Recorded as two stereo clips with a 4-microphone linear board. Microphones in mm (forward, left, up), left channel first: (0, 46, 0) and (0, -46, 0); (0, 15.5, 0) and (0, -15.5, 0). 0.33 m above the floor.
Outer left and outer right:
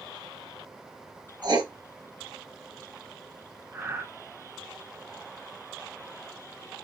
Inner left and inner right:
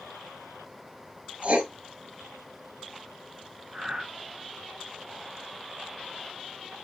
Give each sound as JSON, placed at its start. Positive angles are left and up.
{"t": 1.4, "sound": "writing", "side_deg": -50, "distance_m": 1.0}
{"t": 3.7, "sound": "breathing", "side_deg": -30, "distance_m": 0.8}